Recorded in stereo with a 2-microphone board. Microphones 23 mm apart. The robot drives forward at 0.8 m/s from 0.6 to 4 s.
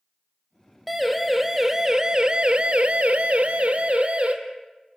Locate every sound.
0.9 s a siren: 5° right (ahead or behind), 3 m; by 4.3 s 50° right (ahead or behind), 2.5 m